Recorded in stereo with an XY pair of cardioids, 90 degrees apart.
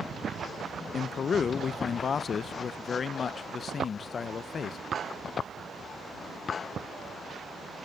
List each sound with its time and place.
0.9 s a man speaking: 55° left, 0.7 m